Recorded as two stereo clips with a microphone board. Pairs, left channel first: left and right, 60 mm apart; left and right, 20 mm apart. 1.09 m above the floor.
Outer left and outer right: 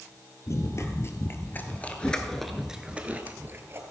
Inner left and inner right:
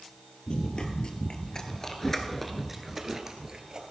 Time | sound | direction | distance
0.5 | running footsteps | 55° left (ahead or behind) | 1.7 m